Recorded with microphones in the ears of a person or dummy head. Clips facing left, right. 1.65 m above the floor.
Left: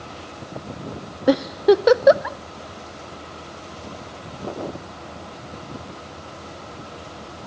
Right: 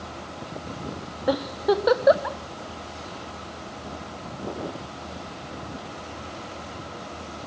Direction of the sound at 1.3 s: 30° left (ahead or behind).